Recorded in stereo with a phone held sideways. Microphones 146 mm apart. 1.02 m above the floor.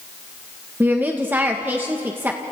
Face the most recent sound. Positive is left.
turn(degrees=-15)  # may be behind; listen again after turning